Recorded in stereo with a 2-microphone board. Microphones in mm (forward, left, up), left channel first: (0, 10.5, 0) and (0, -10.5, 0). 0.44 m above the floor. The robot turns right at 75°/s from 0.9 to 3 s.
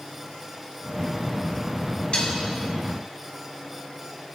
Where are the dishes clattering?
55° left (ahead or behind), 2.0 m; by 2.4 s 35° left (ahead or behind), 2.0 m.